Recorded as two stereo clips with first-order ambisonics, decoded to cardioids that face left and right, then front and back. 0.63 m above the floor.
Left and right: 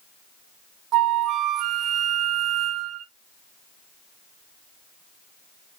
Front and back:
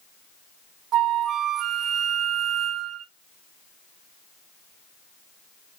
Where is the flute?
130° right, 0.6 m.